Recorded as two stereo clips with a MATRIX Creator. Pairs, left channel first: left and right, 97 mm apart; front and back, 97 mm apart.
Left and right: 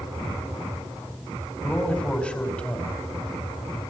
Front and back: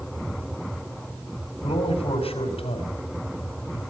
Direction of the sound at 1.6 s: 10° left.